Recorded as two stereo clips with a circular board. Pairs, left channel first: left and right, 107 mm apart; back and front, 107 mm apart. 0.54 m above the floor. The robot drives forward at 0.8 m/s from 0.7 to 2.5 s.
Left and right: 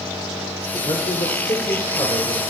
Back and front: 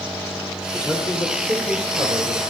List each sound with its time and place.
0.7 s a man speaking: 100° left, 1.4 m; by 2.4 s 140° left, 2 m